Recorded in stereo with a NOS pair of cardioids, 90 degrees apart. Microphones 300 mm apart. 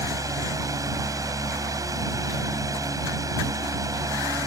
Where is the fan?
10° right.